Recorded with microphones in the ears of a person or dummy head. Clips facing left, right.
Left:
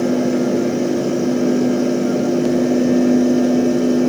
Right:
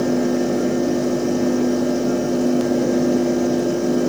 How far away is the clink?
I don't hear a clink.